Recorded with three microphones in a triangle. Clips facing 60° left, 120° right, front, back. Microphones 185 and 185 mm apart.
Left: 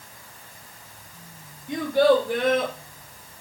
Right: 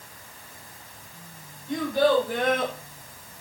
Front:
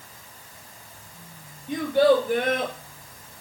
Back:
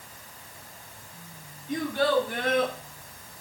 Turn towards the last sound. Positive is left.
turn(degrees=0)